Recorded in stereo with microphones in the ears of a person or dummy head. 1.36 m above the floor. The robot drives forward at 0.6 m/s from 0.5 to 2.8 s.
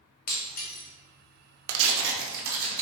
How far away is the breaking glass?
About 1.0 m.